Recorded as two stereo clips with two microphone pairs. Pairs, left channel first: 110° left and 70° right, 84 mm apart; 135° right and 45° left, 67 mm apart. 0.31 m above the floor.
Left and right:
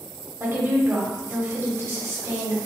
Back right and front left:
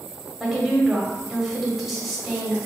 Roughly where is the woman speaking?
Ahead right.